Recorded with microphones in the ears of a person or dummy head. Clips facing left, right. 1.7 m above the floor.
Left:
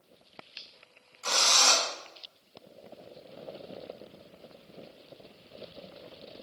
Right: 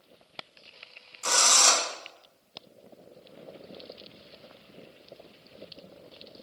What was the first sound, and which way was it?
A drill, 50° right (ahead or behind).